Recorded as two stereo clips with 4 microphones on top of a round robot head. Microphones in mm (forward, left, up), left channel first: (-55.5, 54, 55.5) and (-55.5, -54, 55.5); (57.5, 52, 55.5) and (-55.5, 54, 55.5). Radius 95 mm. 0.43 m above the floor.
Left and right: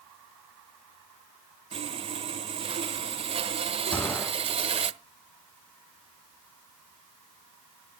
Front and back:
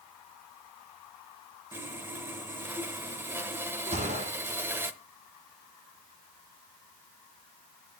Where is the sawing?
110° right, 0.9 m.